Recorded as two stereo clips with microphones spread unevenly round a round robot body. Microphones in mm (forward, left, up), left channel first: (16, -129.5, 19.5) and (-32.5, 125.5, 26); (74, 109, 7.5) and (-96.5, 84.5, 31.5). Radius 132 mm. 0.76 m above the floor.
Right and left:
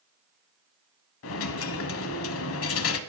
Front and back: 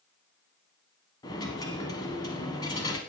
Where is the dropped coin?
65° right, 0.8 m.